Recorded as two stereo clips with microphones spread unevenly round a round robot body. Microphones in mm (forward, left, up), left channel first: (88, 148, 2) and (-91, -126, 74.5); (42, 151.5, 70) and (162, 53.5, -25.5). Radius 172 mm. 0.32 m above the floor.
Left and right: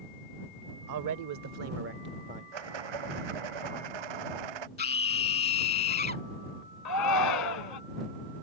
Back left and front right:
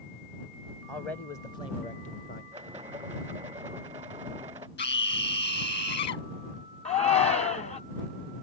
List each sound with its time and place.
0.9 s a man speaking: 100° right; by 2.4 s 165° left
2.5 s a rattle: 115° right
4.8 s a scream: 125° left
6.8 s a shout: 80° left